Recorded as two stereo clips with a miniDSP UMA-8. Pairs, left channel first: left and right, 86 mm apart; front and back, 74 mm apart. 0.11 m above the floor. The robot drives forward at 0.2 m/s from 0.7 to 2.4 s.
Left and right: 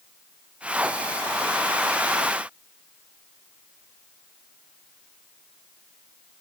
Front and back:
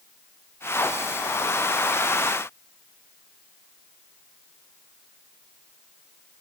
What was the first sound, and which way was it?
Only background noise.